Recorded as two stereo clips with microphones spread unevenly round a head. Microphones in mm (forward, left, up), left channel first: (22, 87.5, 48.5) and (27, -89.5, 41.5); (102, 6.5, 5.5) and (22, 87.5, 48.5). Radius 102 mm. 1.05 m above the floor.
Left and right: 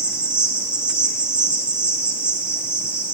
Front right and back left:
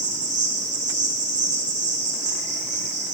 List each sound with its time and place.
0.0 s an insect: 170° right, 3 m